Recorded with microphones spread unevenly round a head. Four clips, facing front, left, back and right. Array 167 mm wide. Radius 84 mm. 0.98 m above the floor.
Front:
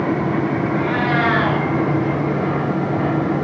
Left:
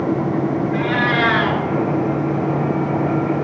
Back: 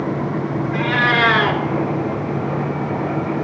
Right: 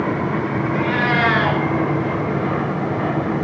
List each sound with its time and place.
0.7 s a cat meowing: 170° left, 3.5 m